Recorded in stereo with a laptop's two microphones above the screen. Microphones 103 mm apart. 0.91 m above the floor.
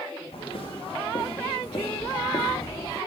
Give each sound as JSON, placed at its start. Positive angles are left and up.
{"t": 0.3, "sound": "footsteps", "side_deg": 60, "distance_m": 4.5}